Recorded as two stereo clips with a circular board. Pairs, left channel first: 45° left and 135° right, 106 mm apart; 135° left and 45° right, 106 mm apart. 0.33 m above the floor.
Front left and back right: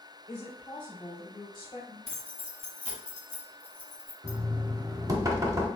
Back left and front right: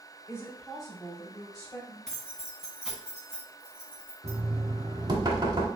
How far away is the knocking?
About 0.9 m.